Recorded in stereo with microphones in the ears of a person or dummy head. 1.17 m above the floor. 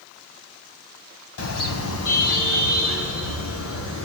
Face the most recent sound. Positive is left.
turn(degrees=70)  # may be behind; listen again after turning